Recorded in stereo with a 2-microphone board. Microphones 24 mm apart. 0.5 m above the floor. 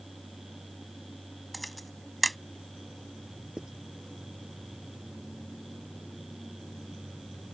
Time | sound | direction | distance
1.5 | a camera shutter | centre (ahead or behind) | ?
3.6 | writing | 25° right (ahead or behind) | ?